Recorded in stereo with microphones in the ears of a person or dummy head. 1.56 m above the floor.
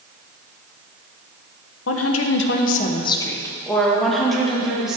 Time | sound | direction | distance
1.9 | a woman speaking | 80° left | 1.4 m